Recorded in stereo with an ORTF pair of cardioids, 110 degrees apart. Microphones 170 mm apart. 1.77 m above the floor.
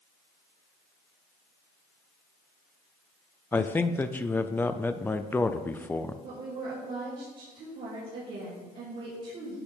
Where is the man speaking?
10° left, 0.5 m.